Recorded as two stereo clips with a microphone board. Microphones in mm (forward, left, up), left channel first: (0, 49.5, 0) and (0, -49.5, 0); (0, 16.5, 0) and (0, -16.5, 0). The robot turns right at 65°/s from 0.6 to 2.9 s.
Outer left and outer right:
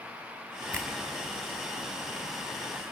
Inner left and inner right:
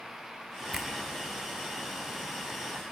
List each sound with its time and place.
0.7 s a finger snap: 10° left (ahead or behind), 3 m; by 0.9 s 20° left (ahead or behind), 3 m